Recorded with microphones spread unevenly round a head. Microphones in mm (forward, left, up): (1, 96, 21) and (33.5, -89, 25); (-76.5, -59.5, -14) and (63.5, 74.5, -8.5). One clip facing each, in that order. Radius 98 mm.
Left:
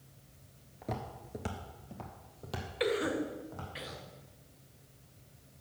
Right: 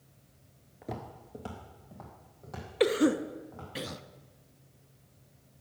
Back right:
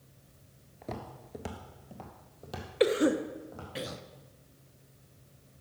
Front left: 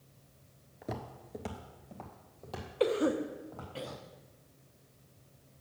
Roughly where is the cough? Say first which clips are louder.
Right 7 dB, back right 3 dB; right.